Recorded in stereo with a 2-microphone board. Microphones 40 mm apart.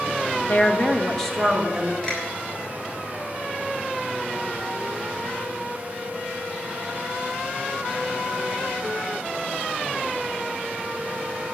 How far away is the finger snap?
About 6.5 m.